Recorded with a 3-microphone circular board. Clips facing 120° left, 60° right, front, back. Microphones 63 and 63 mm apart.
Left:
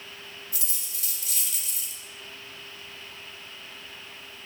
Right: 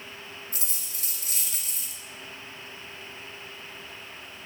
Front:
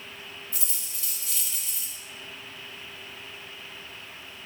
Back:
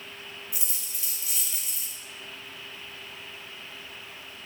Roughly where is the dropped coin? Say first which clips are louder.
Right 1 dB, even; right.